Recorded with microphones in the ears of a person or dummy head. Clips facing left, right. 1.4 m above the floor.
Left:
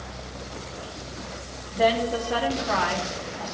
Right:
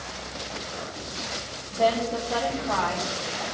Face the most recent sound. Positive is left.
turn(degrees=20)  # may be behind; listen again after turning